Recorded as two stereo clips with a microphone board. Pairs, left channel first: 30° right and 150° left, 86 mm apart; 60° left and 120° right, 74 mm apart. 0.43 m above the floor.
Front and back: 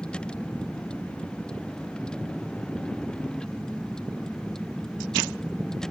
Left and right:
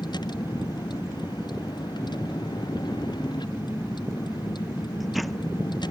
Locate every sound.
0.0 s a vehicle: 50° left; by 5.9 s 55° left